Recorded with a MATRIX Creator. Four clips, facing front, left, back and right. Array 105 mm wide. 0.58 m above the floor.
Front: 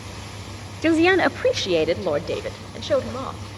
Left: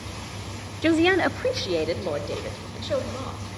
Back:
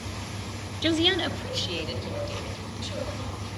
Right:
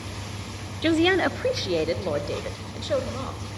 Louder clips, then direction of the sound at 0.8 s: Left 1 dB, front 8 dB; 20° left.